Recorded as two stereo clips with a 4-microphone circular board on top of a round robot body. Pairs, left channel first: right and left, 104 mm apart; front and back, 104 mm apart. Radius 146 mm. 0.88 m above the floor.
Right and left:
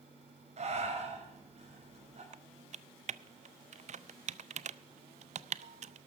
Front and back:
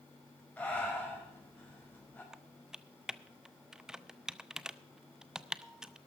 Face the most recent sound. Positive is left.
turn(degrees=95)